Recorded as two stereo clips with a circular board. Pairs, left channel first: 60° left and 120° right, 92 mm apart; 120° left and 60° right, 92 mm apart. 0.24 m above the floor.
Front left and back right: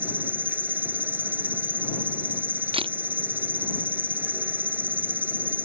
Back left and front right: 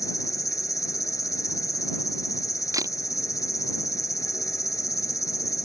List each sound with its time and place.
0.0 s an insect: 170° left
2.7 s a camera shutter: 110° right